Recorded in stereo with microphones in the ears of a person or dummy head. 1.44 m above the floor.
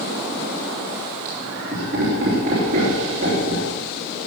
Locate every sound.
1.2 s laughter: 40° right (ahead or behind), 3 m